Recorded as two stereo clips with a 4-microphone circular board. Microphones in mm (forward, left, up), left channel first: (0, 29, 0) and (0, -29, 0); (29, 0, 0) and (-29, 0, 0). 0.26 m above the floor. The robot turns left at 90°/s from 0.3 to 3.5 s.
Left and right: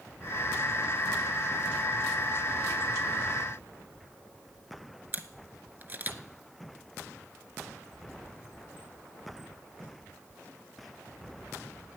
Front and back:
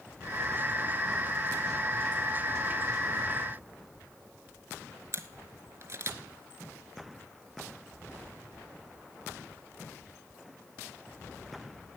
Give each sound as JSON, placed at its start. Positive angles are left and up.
{"t": 5.1, "sound": "a camera shutter", "azimuth_deg": -145, "distance_m": 0.6}